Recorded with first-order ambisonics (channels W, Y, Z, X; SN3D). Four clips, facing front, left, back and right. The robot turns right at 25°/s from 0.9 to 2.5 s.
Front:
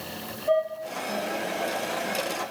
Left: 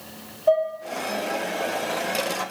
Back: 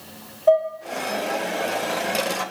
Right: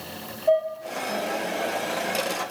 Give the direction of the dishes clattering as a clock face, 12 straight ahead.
7 o'clock.